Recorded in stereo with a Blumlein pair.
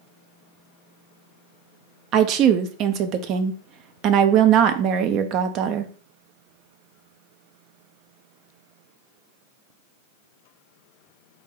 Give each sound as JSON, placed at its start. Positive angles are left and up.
{"t": 2.1, "sound": "a woman speaking", "azimuth_deg": -35, "distance_m": 0.6}